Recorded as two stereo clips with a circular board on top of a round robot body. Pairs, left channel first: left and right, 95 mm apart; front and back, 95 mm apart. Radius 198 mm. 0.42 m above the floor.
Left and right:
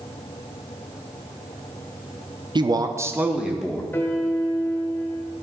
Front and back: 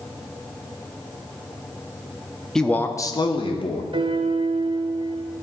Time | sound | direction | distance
2.5 | a man speaking | 85° right | 0.9 m
3.9 | a piano | 155° left | 1.0 m